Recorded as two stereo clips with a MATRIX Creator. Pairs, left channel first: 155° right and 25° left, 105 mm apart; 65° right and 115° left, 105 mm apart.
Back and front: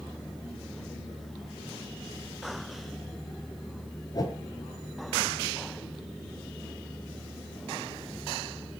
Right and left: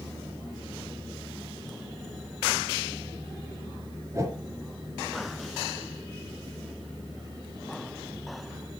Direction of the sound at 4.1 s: 165° left.